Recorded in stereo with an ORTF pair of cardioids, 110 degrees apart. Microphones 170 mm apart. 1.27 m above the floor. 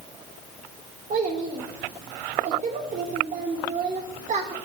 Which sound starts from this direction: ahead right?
A child speaking, at 1.1 s.